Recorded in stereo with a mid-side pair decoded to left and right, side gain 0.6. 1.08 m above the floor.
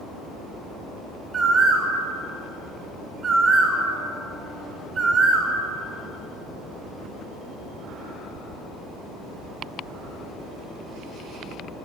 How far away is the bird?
About 4 m.